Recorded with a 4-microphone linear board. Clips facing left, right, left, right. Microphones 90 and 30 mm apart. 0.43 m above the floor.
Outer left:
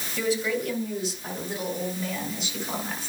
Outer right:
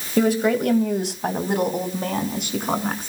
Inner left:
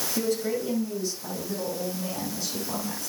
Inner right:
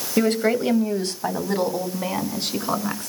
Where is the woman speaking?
55° right (ahead or behind), 2.5 m.